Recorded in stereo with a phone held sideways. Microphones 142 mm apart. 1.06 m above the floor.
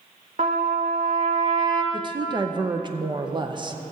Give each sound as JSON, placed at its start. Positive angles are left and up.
{"t": 0.4, "sound": "a trumpet", "side_deg": -70, "distance_m": 1.4}
{"t": 1.9, "sound": "a woman speaking", "side_deg": -35, "distance_m": 0.7}